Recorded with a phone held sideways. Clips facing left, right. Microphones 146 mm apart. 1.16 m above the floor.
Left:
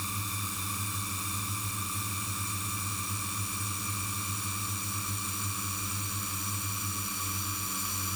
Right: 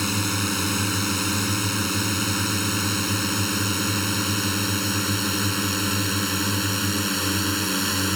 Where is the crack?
I don't hear a crack.